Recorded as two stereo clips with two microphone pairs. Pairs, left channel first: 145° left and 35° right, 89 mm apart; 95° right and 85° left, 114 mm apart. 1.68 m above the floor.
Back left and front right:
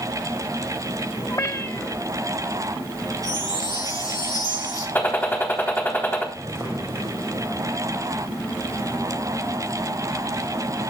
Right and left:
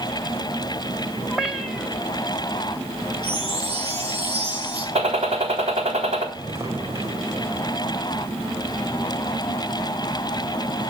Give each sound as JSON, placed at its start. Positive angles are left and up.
{"t": 1.3, "sound": "a cat meowing", "azimuth_deg": 170, "distance_m": 2.0}
{"t": 3.2, "sound": "a chime", "azimuth_deg": 105, "distance_m": 8.0}
{"t": 5.0, "sound": "a gunshot", "azimuth_deg": 80, "distance_m": 3.5}
{"t": 6.3, "sound": "footsteps", "azimuth_deg": 20, "distance_m": 5.0}